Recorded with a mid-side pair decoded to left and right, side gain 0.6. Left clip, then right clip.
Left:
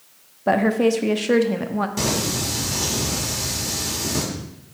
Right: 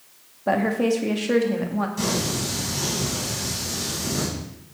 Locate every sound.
0.5 s a woman speaking: 20° left, 0.8 m
2.0 s singing: 60° left, 2 m